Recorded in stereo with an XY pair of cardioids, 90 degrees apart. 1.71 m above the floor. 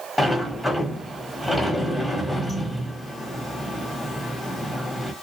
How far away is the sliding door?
About 1.2 m.